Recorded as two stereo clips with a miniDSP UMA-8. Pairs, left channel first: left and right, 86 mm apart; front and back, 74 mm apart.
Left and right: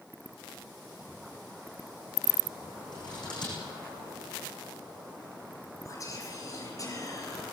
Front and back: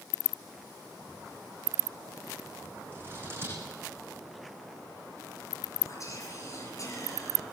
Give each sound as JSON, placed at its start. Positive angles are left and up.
{"t": 2.9, "sound": "scissors", "azimuth_deg": 120, "distance_m": 9.5}
{"t": 5.8, "sound": "whispering", "azimuth_deg": 40, "distance_m": 5.5}